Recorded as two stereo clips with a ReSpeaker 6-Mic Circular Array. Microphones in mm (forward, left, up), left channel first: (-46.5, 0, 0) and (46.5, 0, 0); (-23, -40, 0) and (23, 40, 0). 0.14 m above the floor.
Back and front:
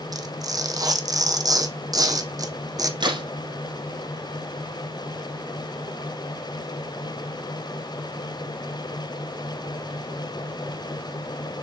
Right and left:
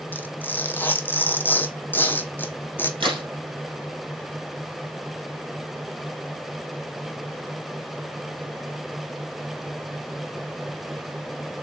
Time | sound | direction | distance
0.1 | tearing paper | 50° right | 1.1 m
3.0 | a crack | 35° left | 4 m